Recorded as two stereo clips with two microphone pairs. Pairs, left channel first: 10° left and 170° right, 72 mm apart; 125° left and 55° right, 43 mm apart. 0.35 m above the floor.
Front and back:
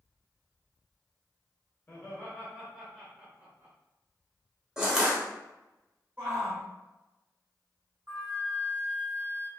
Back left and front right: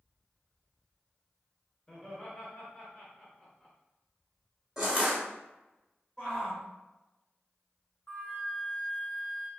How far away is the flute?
About 1.2 m.